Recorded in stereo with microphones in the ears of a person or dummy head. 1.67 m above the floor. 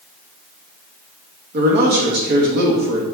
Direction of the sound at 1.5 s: 55° right (ahead or behind).